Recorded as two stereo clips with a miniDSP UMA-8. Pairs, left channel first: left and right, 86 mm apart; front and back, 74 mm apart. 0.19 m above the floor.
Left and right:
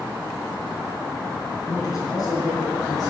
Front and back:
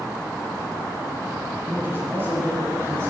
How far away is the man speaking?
About 2.5 m.